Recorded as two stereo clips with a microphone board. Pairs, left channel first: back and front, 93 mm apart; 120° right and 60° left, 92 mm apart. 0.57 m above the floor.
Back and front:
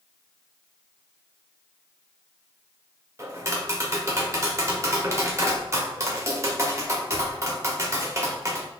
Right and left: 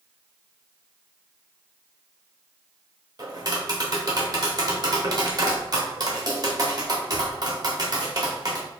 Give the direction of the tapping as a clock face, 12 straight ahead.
11 o'clock.